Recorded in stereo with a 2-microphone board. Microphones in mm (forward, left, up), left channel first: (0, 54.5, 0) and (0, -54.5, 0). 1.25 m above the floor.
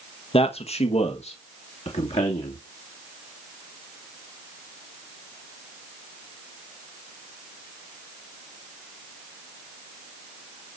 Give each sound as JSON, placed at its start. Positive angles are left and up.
{"t": 0.3, "sound": "a man speaking", "side_deg": 65, "distance_m": 1.2}